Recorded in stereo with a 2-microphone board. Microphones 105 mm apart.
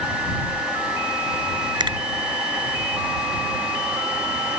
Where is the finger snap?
40° right (ahead or behind).